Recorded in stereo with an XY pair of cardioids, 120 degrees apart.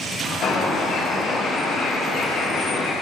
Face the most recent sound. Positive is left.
turn(degrees=60)